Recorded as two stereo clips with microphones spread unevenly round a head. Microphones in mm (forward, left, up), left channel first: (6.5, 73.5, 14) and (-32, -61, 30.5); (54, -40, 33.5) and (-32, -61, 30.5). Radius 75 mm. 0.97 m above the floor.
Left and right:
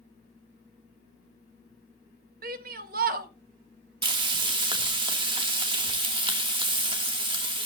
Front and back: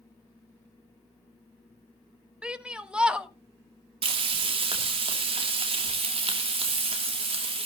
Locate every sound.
2.4 s a shout: 90° right, 1.7 m
4.0 s frying: 165° right, 2.5 m